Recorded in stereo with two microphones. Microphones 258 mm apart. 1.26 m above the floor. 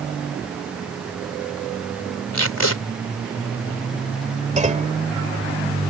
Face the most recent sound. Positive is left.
turn(degrees=-30)  # may be behind; listen again after turning